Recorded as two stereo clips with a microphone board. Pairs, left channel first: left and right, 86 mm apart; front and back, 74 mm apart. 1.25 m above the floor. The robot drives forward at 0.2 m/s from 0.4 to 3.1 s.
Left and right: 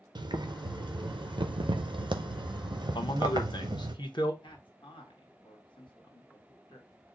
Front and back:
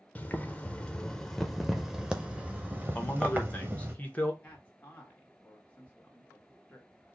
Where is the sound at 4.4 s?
70° left, 1.4 m.